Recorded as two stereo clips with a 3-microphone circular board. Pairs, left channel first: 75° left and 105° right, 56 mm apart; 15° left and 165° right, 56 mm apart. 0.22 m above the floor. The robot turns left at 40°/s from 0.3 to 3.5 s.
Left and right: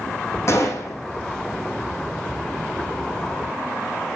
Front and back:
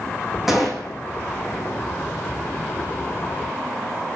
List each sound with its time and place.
0.5 s a gunshot: 115° left, 3.5 m; by 1.0 s 95° left, 3.5 m